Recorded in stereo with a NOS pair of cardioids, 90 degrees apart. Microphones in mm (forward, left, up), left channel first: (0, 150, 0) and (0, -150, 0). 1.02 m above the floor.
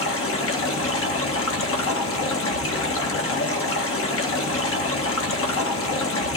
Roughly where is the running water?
Ahead left.